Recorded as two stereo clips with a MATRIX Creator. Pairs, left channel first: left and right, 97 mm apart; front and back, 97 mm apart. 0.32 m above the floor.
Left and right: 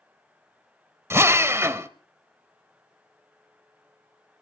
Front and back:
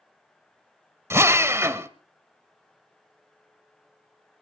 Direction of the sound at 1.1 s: 135° right.